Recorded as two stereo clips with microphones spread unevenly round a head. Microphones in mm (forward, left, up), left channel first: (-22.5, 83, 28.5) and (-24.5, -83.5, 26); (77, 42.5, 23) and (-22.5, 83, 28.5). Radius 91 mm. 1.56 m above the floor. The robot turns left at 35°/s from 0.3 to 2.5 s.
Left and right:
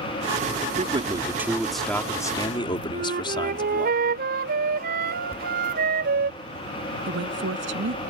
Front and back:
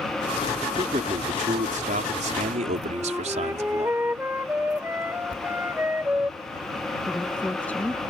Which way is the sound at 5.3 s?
20° right.